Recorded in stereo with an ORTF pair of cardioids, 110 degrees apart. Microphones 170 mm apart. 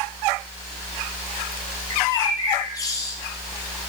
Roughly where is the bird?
Ahead.